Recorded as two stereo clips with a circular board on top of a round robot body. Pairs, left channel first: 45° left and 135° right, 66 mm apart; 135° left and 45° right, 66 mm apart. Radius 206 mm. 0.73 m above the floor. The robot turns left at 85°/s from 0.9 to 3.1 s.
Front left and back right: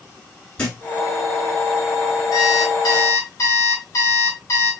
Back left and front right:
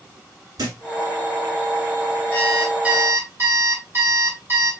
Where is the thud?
30° right, 1.1 m.